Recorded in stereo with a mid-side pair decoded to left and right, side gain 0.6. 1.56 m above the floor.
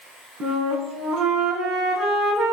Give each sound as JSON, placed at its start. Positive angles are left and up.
{"t": 0.4, "sound": "a flute", "azimuth_deg": -65, "distance_m": 4.0}